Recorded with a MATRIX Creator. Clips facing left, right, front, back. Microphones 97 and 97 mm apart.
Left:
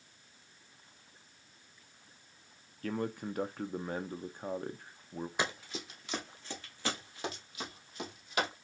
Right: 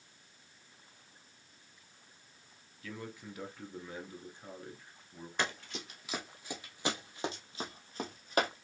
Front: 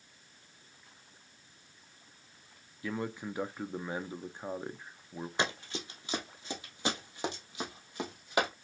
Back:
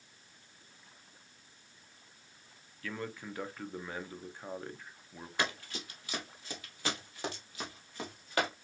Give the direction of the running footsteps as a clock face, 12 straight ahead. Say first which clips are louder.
Right 1 dB, front 1 dB; 11 o'clock.